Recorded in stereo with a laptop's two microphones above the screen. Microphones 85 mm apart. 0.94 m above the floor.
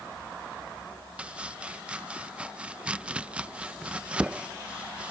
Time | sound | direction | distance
1.2 | chopping | 15° right (ahead or behind) | ?